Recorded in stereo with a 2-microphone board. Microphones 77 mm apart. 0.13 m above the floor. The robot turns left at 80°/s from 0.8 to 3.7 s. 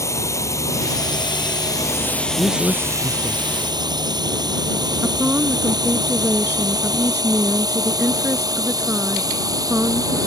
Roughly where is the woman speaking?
Right.